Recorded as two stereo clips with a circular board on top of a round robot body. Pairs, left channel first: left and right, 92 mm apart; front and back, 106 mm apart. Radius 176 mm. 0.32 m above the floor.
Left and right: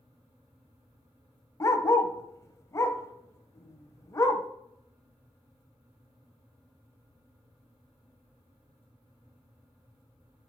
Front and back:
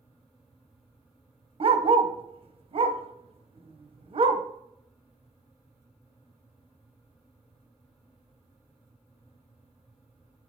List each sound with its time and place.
1.6 s a dog barking: 150° left, 1.0 m